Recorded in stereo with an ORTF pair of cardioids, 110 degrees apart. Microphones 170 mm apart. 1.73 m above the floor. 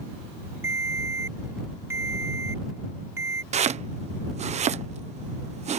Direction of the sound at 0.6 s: 15° right.